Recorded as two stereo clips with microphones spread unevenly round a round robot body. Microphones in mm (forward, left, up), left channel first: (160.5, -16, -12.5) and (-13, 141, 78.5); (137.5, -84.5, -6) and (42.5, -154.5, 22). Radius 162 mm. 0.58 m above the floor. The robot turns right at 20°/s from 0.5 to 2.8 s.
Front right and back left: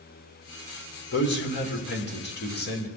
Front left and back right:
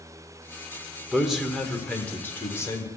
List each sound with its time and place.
1.1 s a man speaking: 55° right, 1.8 m; by 2.9 s 20° right, 1.8 m